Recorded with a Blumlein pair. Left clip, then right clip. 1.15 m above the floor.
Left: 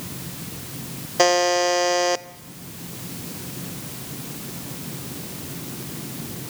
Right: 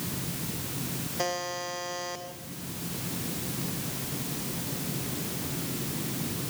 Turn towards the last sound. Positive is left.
turn(degrees=55)